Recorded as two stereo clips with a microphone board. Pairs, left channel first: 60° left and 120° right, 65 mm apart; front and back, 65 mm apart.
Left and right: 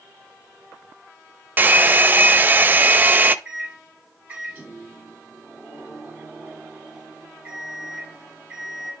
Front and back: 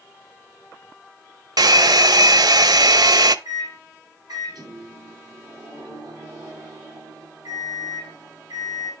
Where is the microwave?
170° left, 4 m.